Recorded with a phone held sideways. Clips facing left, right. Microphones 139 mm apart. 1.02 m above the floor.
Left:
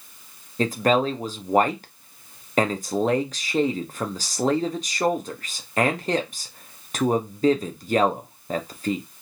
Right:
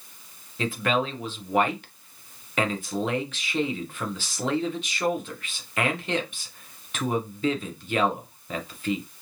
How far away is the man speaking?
About 0.6 m.